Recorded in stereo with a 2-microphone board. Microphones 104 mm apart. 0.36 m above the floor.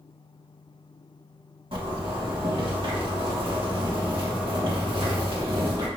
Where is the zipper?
60° right (ahead or behind), 2.0 m.